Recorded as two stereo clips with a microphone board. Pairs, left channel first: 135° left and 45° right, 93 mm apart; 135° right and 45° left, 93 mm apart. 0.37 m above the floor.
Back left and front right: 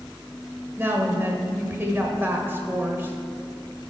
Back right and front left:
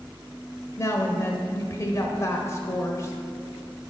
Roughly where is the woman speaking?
Right.